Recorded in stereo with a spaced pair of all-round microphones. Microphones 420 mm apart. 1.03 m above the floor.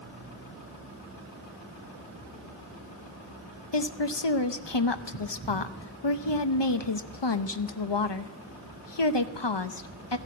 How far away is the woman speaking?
About 0.8 m.